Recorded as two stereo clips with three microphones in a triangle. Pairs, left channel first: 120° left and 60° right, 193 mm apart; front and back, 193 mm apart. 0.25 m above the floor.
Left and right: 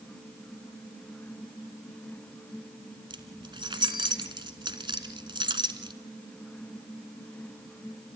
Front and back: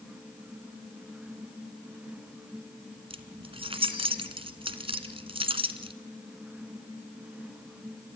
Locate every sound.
3.1 s keys jangling: 120° right, 1.8 m